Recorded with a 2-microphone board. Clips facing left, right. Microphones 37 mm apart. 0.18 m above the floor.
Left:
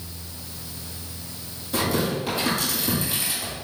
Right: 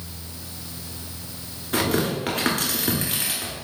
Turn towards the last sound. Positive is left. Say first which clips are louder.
# right 1 dB
turn(degrees=-60)  # may be behind; listen again after turning